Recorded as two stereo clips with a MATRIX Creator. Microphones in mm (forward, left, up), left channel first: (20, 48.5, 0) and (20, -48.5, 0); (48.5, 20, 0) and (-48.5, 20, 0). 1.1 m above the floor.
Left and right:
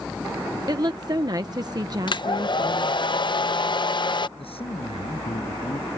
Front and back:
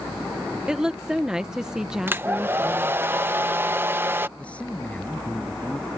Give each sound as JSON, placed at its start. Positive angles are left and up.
{"t": 0.7, "sound": "a woman speaking", "azimuth_deg": -100}
{"t": 2.1, "sound": "a hair dryer", "azimuth_deg": 115}
{"t": 4.4, "sound": "a man speaking", "azimuth_deg": 80}